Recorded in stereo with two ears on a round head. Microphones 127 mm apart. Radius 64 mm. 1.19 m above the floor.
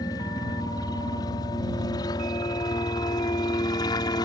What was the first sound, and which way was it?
A helicopter, 25° left (ahead or behind).